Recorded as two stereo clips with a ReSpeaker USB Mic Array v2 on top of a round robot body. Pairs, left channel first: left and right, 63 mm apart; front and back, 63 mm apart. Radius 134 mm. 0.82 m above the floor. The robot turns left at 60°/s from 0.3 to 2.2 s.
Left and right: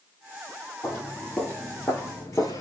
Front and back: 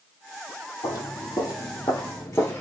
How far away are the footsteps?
About 1.3 m.